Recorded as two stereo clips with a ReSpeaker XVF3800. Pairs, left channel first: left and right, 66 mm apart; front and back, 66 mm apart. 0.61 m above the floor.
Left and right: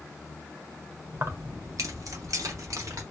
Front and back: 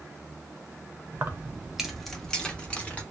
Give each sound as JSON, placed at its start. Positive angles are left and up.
{"t": 1.1, "sound": "keys jangling", "azimuth_deg": -130, "distance_m": 0.6}